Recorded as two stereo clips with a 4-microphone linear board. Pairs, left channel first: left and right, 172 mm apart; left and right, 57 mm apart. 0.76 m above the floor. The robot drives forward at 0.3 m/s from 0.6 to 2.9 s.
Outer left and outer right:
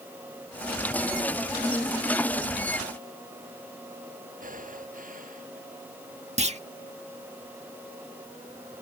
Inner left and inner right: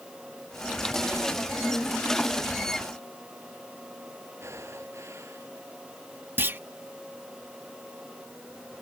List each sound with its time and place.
4.4 s breathing: 50° right (ahead or behind)
6.4 s a clunk: 40° right (ahead or behind)